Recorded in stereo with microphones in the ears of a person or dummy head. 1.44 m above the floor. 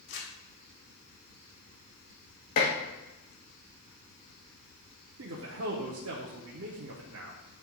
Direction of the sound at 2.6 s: 45° left (ahead or behind).